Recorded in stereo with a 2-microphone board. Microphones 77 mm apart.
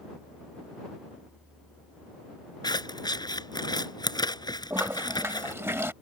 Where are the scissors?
65° left (ahead or behind).